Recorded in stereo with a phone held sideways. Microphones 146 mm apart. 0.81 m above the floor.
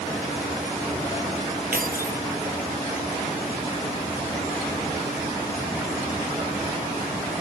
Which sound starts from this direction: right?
Keys jangling, at 1.7 s.